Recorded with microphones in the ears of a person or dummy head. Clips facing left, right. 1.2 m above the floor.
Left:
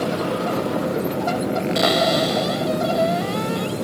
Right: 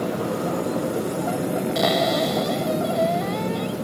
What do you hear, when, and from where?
1.8 s a cupboard door: 5° left (ahead or behind)